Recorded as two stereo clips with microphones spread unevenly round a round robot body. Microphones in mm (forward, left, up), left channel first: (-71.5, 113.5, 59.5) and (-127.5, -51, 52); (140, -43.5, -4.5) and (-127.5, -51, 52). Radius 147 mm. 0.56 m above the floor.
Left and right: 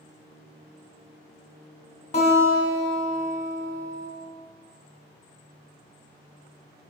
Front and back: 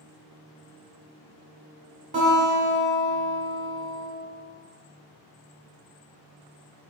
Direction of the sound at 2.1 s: 115° left.